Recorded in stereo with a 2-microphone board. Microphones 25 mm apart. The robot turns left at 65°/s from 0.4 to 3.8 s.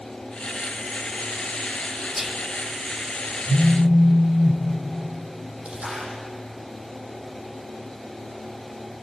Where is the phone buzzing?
55° right (ahead or behind), 9 m; by 4.6 s 75° right (ahead or behind), 9 m.